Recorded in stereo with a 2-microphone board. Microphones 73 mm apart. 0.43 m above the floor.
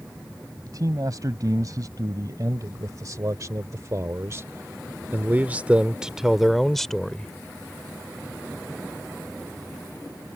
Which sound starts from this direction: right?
A man speaking, at 0.7 s.